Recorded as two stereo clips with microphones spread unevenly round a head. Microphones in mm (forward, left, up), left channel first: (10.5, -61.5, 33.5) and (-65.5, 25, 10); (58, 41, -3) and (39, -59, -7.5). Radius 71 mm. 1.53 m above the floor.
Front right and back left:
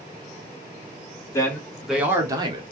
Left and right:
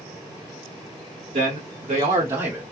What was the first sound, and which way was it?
A man speaking, 115° right.